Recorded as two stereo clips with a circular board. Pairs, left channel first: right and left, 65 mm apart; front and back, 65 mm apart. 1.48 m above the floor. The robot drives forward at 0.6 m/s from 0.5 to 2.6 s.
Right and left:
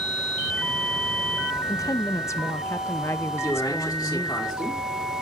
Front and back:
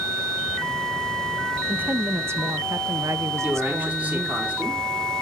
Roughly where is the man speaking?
Behind right.